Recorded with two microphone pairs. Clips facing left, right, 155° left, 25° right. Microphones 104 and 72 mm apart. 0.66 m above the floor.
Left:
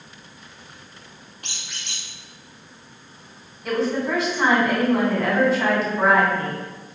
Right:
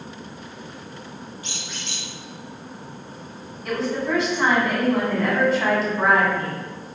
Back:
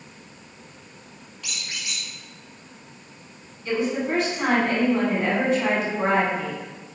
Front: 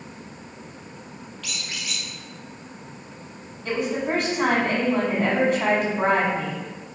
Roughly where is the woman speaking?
Ahead.